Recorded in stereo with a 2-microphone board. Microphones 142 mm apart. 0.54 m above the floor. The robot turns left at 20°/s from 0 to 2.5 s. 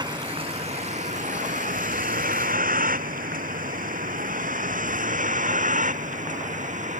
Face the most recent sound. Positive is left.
turn(degrees=-60)  # may be behind; listen again after turning